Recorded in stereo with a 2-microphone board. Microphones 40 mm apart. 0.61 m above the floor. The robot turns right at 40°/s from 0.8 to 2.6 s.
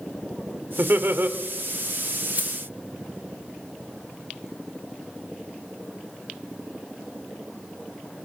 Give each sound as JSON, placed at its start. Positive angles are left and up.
{"t": 0.8, "sound": "laughter", "side_deg": -55, "distance_m": 1.6}
{"t": 2.4, "sound": "keys jangling", "side_deg": -45, "distance_m": 1.8}